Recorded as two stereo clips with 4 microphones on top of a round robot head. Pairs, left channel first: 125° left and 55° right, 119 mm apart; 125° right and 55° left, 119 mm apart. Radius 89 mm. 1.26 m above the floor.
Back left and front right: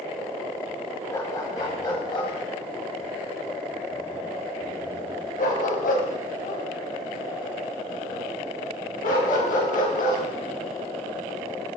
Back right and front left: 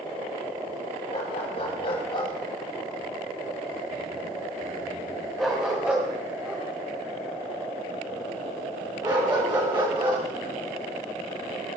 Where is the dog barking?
165° right, 4 m; by 10.2 s 110° left, 6.5 m.